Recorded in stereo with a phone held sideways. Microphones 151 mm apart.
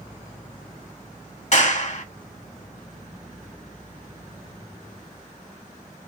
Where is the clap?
50° left (ahead or behind), 1.6 m.